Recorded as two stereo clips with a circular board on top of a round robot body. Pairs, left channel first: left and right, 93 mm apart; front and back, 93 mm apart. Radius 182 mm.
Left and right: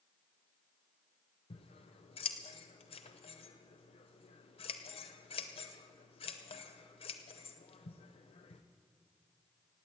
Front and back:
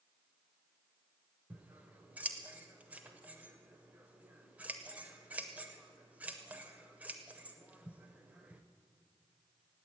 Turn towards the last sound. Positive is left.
turn(degrees=105)